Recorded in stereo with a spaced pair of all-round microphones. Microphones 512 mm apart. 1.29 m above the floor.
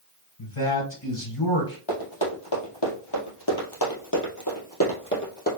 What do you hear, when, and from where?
0.4 s a man speaking: 80° left, 3 m
1.9 s running footsteps: 60° left (ahead or behind), 2.5 m; by 5.5 s 20° left (ahead or behind), 2 m